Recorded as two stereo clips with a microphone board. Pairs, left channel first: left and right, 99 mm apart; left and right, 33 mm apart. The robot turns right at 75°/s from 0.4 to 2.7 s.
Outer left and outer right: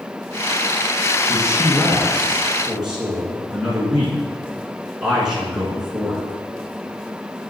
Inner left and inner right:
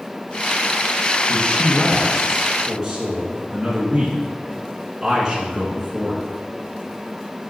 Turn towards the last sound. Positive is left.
turn(degrees=-5)  # may be behind; listen again after turning